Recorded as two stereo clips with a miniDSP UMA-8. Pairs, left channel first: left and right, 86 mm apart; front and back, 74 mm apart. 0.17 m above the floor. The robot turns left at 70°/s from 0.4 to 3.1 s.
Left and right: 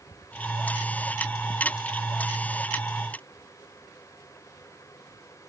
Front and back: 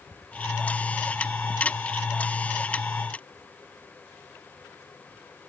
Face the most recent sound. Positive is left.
No sound to turn to.